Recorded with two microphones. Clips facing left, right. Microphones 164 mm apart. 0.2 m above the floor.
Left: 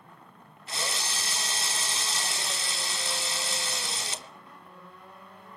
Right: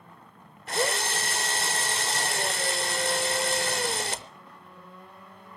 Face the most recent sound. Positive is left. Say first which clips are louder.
# right 8 dB
turn(degrees=-60)  # may be behind; listen again after turning